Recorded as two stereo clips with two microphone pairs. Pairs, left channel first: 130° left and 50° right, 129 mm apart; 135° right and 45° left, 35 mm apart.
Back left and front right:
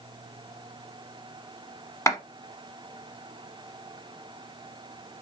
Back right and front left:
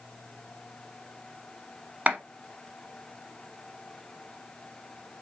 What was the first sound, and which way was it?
A clap, 75° left.